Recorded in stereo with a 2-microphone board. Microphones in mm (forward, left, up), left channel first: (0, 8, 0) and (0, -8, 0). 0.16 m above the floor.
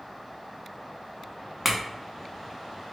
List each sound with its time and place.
1.6 s a clink: 10° right (ahead or behind), 0.8 m